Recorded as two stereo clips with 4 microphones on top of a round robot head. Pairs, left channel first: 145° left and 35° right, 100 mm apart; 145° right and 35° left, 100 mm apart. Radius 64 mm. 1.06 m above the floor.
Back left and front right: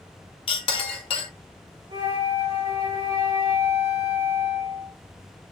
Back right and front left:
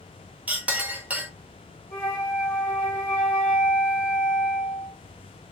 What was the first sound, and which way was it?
A clink, 110° left.